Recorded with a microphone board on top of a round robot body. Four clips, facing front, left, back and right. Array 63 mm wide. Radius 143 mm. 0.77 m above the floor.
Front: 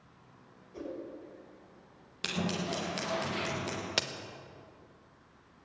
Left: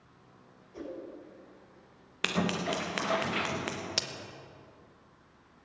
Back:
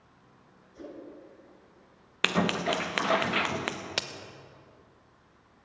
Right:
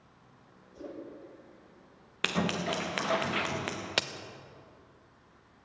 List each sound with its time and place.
0.7 s a whoosh: 40° left, 7 m
2.2 s scissors: straight behind, 1.0 m
4.0 s a crack: 95° right, 1.1 m